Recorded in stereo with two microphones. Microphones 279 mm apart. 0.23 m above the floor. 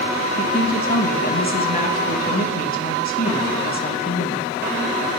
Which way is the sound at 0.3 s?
30° left (ahead or behind).